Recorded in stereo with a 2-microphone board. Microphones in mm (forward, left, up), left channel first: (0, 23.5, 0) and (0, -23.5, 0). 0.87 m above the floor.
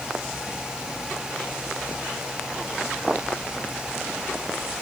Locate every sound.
Only background noise.